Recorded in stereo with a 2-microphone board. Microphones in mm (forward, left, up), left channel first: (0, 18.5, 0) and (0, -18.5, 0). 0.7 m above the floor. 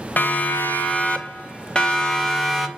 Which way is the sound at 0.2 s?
55° left (ahead or behind).